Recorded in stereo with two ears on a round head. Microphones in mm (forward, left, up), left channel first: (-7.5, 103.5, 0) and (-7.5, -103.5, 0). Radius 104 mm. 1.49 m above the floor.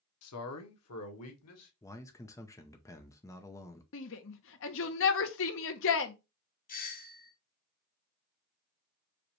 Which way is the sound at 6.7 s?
40° left (ahead or behind).